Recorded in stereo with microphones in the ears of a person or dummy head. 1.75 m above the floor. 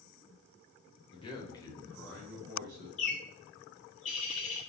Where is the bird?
45° left (ahead or behind), 1.7 m.